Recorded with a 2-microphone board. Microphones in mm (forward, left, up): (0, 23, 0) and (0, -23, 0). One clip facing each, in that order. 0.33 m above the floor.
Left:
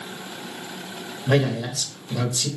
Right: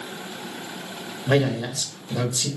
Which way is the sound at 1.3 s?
10° right (ahead or behind).